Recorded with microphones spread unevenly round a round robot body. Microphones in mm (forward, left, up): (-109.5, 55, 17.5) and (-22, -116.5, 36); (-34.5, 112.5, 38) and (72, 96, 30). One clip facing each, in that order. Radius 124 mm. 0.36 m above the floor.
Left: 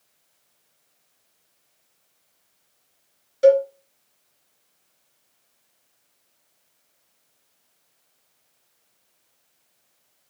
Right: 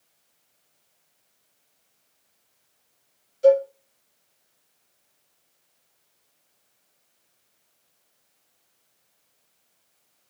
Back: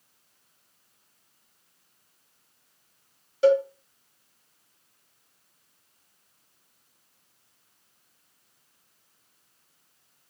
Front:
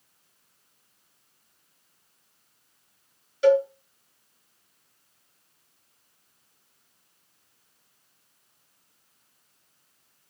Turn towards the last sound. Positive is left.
turn(degrees=125)